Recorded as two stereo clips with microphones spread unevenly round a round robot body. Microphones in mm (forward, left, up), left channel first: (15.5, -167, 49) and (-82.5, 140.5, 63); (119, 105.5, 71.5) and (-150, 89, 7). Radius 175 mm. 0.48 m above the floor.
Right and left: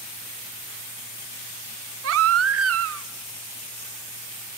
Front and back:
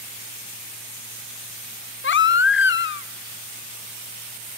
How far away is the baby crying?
About 0.8 m.